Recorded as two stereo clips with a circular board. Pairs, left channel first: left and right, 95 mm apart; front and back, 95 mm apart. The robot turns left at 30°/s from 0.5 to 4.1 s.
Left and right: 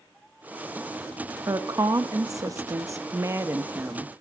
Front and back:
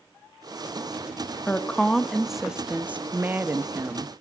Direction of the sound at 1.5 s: 70° right.